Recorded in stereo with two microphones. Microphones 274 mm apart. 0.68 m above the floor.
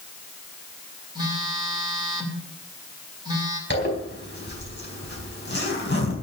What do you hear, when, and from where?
1.1 s a phone buzzing: 15° right (ahead or behind), 3 m
3.7 s a zipper: 40° left (ahead or behind), 4 m